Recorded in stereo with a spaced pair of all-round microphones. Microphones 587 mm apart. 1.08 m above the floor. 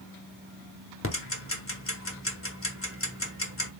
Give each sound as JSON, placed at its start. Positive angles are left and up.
{"t": 1.0, "sound": "ticking", "side_deg": 25, "distance_m": 0.7}